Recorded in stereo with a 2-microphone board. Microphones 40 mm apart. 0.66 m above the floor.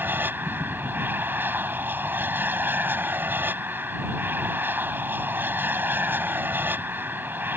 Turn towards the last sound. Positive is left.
turn(degrees=-60)  # may be behind; listen again after turning